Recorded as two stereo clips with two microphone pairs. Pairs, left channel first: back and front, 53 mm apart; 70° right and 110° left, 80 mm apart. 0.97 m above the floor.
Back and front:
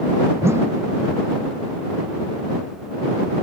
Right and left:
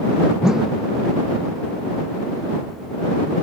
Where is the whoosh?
25° left.